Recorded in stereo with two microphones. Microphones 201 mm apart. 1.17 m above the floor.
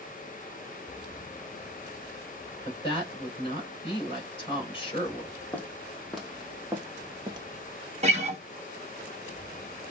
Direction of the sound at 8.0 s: 30° right (ahead or behind).